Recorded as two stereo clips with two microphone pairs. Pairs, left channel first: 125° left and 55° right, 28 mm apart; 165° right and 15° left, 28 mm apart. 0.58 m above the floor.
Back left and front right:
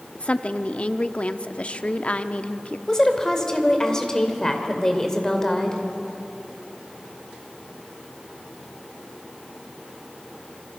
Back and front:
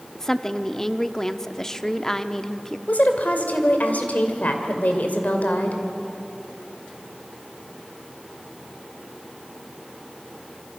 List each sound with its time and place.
0.1 s a woman speaking: 130° left, 0.8 m
2.9 s a woman speaking: 165° right, 2.5 m